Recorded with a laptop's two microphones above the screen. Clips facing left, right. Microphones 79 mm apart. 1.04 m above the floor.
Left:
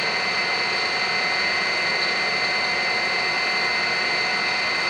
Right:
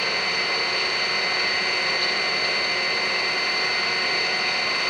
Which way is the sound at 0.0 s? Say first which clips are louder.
Left 1 dB; 25° left (ahead or behind).